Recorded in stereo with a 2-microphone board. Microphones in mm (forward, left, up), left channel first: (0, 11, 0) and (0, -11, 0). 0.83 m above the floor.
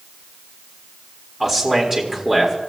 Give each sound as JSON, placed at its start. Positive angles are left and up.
{"t": 1.4, "sound": "a man speaking", "side_deg": -15, "distance_m": 3.0}